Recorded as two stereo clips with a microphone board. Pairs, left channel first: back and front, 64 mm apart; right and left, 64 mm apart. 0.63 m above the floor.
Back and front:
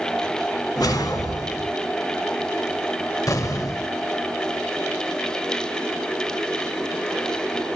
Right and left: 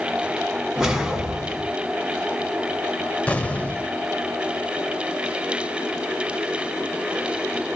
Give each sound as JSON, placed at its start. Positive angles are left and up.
{"t": 0.8, "sound": "a whoosh", "azimuth_deg": 175, "distance_m": 1.7}
{"t": 3.3, "sound": "an explosion", "azimuth_deg": -155, "distance_m": 0.6}